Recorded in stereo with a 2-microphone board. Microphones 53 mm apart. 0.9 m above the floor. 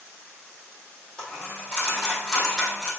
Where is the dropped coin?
20° left (ahead or behind), 3.5 m.